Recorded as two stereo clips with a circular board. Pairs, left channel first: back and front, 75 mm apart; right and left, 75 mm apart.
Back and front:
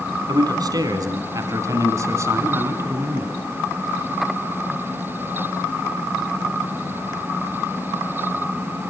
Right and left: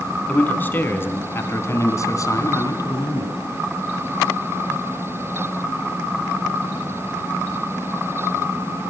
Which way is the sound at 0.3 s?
20° right.